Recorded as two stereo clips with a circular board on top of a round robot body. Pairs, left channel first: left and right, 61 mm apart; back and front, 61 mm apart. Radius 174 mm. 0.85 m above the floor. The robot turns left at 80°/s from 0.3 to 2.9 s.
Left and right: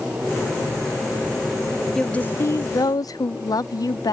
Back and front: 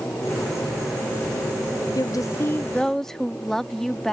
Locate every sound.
1.9 s a woman speaking: 175° left; by 4.1 s 95° left